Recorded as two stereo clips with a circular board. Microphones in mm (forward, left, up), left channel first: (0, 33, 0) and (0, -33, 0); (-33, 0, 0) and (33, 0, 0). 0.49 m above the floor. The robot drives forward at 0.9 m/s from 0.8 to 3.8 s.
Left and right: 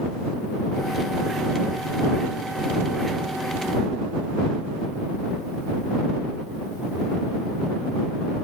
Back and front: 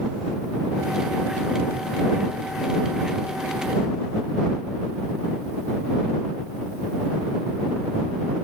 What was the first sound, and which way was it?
Only background noise.